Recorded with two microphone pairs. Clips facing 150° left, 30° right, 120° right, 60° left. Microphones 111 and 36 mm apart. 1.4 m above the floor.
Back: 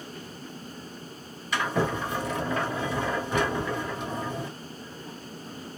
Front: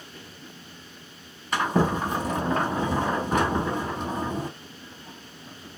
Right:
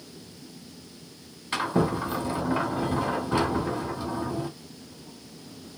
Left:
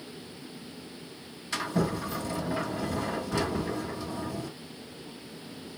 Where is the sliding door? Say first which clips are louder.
Front 3 dB, right 4 dB; 75° right, 1.6 m.